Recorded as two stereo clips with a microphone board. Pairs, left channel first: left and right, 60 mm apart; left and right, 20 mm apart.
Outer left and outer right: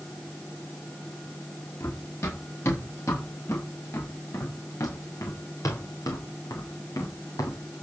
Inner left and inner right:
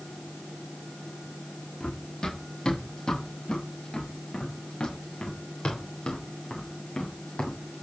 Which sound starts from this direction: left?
Running footsteps, at 1.8 s.